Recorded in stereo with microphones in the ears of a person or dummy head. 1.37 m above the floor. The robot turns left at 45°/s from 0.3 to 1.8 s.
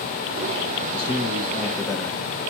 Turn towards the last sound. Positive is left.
turn(degrees=15)